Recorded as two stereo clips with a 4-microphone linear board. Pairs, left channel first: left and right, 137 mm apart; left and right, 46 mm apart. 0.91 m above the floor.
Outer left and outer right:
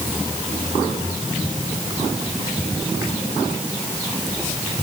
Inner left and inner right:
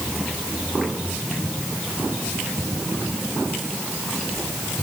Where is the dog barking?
I don't hear a dog barking.